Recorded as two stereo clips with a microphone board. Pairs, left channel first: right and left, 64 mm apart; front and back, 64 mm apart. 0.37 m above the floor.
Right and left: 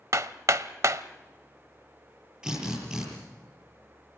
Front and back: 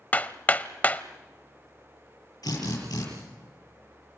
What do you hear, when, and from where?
0.1 s hammering: 60° left, 0.7 m
2.4 s a drill: 10° left, 8 m